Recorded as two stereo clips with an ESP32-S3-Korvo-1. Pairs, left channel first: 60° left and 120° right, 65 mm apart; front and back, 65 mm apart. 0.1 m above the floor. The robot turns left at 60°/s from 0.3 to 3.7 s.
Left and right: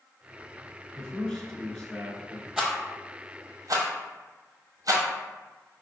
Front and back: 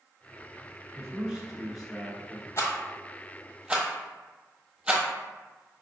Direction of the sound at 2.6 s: 35° right.